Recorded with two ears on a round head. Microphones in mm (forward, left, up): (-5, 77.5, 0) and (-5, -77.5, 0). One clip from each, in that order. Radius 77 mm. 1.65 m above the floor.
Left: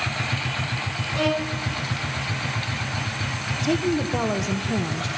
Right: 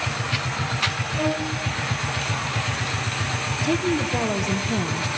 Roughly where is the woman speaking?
Centre.